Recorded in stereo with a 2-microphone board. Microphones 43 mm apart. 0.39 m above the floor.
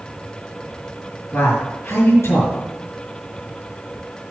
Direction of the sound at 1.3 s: 80° left.